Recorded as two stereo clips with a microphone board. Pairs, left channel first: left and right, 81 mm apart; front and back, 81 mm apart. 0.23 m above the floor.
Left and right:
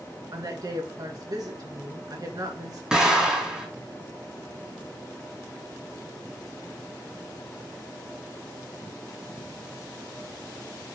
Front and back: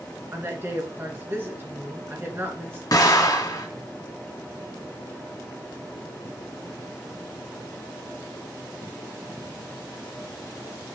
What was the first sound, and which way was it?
A woman speaking, 120° right.